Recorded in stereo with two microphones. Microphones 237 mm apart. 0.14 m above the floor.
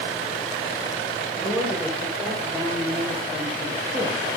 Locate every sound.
1.4 s a woman speaking: centre (ahead or behind), 8 m; by 4.2 s 20° right (ahead or behind), 8.5 m